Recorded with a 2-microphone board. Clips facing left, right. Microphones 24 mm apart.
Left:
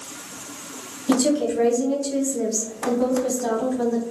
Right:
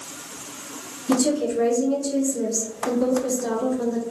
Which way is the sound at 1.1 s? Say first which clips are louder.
Left 1 dB; 55° left (ahead or behind).